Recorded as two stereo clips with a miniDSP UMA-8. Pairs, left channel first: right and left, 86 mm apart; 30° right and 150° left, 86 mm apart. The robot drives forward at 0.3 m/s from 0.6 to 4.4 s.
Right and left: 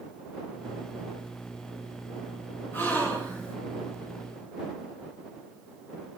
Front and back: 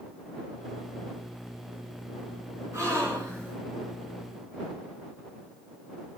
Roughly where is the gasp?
Behind right.